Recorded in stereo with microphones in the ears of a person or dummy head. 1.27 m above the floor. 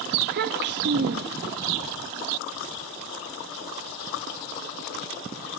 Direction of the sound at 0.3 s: 55° right (ahead or behind).